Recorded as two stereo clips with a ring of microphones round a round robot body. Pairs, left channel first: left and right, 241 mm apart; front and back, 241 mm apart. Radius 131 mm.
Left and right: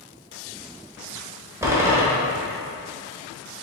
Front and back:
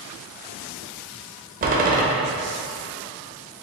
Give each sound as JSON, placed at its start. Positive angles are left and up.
{"t": 1.6, "sound": "a door slam", "azimuth_deg": -160, "distance_m": 1.0}